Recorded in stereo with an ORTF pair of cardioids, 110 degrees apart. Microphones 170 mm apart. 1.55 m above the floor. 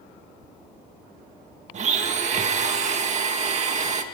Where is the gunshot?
No gunshot in this recording.